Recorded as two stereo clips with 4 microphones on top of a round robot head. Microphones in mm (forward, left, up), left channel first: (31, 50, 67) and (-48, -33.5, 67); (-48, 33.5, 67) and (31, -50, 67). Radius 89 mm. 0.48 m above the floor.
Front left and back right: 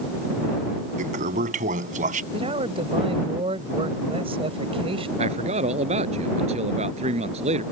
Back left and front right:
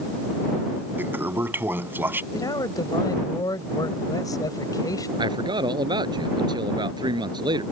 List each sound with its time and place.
1.0 s a toilet flushing: 120° right
2.3 s a man speaking: 170° right
5.2 s a man speaking: 100° right